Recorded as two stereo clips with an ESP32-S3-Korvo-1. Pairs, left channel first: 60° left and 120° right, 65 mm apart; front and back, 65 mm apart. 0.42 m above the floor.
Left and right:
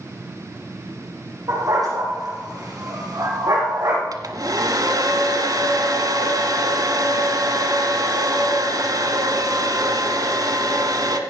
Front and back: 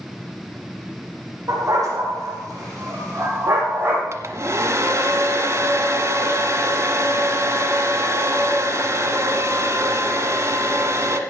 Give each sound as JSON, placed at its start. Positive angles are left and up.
{"t": 1.5, "sound": "a dog barking", "azimuth_deg": -145, "distance_m": 5.5}
{"t": 4.1, "sound": "a hair dryer", "azimuth_deg": -140, "distance_m": 1.3}